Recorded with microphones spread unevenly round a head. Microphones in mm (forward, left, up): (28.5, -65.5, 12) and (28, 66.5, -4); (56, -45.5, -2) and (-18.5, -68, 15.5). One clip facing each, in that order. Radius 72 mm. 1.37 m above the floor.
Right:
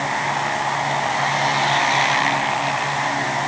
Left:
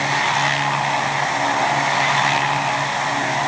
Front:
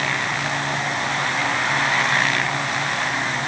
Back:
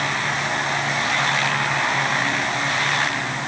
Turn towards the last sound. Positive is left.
No sound to turn to.